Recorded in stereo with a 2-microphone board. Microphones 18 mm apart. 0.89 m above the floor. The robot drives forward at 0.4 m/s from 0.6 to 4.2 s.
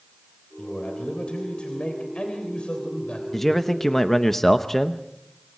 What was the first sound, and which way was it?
A man speaking, 70° left (ahead or behind).